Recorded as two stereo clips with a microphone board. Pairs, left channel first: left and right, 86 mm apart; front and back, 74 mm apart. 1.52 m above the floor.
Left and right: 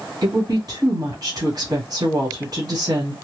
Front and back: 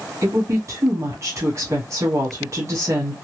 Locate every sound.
0.2 s a woman speaking: 135° right, 1.4 m